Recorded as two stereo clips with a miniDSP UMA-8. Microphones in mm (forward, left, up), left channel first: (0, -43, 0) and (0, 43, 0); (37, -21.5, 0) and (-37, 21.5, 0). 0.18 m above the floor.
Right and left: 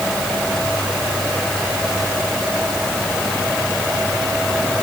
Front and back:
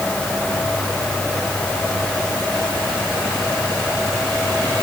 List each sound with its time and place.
Only background noise.